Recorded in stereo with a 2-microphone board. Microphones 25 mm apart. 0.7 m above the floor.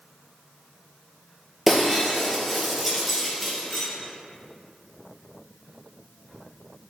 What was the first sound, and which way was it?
Breaking glass, 5° right (ahead or behind).